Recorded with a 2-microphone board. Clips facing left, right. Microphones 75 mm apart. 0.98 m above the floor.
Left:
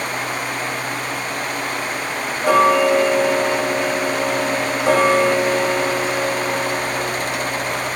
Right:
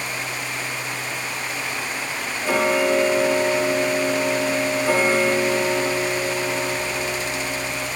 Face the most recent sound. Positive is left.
turn(degrees=65)  # may be behind; listen again after turning